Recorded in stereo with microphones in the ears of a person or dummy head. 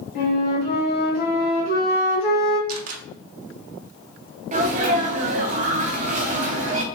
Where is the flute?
50° left (ahead or behind), 1.6 m.